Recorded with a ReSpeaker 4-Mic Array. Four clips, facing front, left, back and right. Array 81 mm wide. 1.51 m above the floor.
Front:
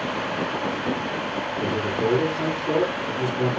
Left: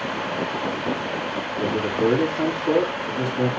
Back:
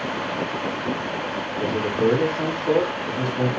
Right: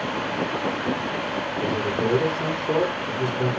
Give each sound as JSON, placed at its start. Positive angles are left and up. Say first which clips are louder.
{"t": 1.6, "sound": "a man speaking", "louder": "left 3 dB, back 3 dB", "azimuth_deg": 115, "distance_m": 8.0}